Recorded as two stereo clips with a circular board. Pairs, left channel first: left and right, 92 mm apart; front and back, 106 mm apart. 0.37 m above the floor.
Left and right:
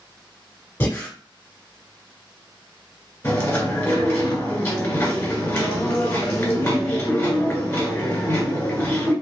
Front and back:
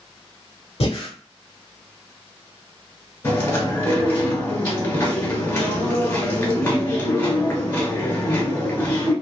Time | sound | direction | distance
0.8 | breathing | 25° left | 0.7 m
3.2 | chewing | 45° left | 1.4 m